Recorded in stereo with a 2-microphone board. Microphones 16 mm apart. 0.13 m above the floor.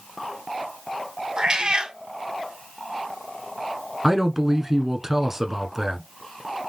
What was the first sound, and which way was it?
A cat meowing, 65° right (ahead or behind).